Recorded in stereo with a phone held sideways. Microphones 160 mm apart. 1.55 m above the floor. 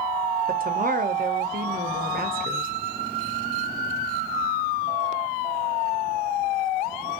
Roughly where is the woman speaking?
Right.